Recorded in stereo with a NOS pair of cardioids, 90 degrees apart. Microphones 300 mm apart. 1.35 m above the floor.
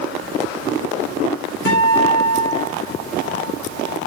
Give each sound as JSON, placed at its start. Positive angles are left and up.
{"t": 1.6, "sound": "a guitar", "azimuth_deg": 45, "distance_m": 4.5}